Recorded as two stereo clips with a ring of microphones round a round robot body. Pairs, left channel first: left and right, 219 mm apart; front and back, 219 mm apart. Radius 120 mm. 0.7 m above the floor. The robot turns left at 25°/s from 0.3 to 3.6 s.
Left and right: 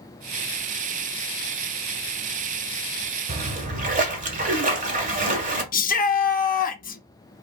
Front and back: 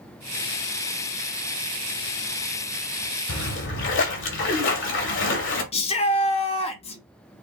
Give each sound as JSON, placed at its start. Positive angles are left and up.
{"t": 3.3, "sound": "a splash", "azimuth_deg": -25, "distance_m": 1.8}
{"t": 5.7, "sound": "a shout", "azimuth_deg": 55, "distance_m": 0.9}